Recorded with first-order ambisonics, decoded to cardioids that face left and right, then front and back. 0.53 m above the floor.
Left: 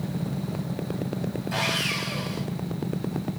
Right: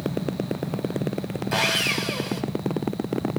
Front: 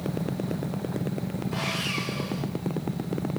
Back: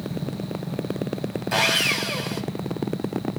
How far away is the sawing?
About 3 m.